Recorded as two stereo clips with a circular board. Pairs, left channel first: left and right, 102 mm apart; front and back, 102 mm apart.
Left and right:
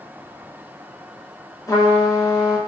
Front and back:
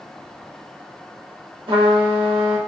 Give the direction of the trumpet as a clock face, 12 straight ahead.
7 o'clock.